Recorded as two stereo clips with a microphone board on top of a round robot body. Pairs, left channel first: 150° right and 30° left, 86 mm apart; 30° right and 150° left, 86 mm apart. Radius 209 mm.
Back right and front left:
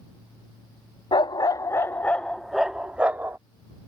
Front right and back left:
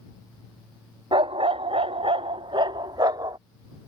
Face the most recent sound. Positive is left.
turn(degrees=100)